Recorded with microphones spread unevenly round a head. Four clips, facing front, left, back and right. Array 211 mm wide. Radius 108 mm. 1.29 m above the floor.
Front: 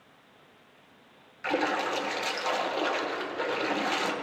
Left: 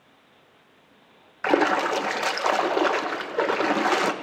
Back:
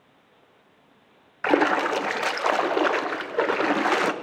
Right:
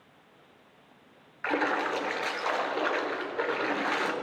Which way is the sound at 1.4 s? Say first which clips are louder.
Left 7 dB, back 7 dB; 140° left.